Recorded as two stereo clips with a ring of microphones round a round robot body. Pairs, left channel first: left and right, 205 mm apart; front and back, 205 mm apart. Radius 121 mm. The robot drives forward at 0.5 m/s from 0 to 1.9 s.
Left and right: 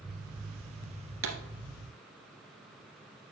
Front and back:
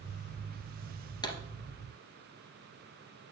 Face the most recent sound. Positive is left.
turn(degrees=-80)